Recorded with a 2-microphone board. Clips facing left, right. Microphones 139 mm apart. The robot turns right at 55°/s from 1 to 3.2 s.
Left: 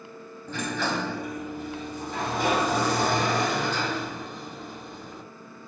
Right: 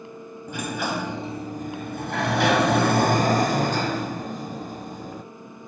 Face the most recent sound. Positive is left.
turn(degrees=-45)